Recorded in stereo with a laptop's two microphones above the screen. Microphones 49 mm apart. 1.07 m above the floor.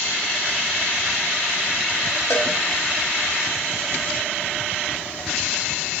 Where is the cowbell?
60° left (ahead or behind), 1.0 m.